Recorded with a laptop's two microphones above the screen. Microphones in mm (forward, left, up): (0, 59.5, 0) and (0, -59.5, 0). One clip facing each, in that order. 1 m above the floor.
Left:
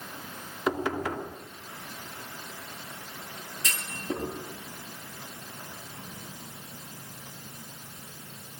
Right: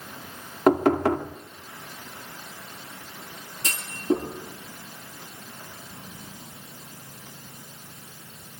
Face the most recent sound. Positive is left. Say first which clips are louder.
# right 10 dB
turn(degrees=-35)  # may be behind; listen again after turning